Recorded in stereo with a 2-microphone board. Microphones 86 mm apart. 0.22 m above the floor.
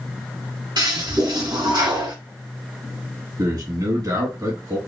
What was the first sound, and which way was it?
A toilet flushing, 60° right (ahead or behind).